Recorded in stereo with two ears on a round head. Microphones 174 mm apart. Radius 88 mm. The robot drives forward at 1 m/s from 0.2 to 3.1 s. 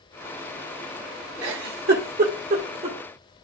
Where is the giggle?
75° right (ahead or behind), 1.4 m; by 3.0 s 35° right (ahead or behind), 2.5 m.